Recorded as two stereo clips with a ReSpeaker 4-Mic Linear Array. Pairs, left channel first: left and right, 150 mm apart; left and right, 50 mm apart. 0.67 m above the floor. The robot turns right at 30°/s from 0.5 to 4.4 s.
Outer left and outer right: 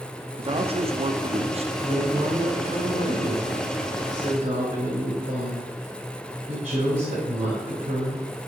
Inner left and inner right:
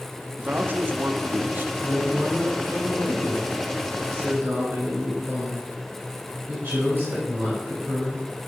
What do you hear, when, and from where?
0.4 s a man speaking: 115° right, 0.7 m; by 1.7 s 75° right, 0.7 m
1.8 s a woman speaking: 145° right, 2.5 m; by 8.3 s 65° right, 2.5 m